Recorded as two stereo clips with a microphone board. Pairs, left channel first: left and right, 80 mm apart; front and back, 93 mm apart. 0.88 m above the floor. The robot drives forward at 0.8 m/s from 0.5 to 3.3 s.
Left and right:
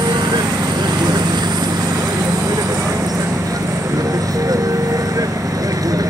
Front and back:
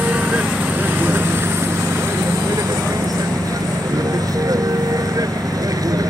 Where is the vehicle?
105° right; by 6.1 s 130° right.